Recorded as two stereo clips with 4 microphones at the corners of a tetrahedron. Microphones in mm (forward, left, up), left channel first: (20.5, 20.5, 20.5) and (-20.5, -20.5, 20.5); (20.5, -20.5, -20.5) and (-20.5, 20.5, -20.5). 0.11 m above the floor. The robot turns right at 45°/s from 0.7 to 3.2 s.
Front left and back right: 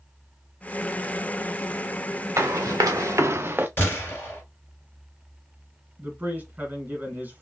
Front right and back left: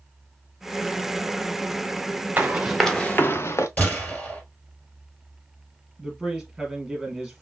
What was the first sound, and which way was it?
Running footsteps, 160° right.